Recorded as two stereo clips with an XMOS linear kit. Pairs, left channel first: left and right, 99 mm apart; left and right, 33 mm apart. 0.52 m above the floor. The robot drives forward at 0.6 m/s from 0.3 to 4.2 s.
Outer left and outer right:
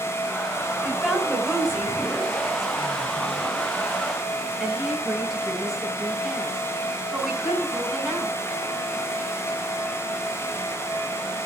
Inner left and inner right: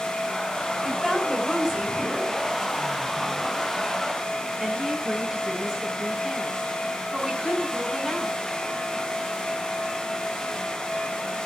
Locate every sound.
0.8 s a woman speaking: centre (ahead or behind), 4 m